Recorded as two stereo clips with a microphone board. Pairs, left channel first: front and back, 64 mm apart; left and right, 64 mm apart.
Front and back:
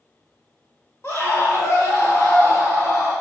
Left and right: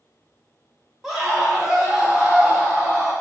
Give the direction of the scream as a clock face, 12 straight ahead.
12 o'clock.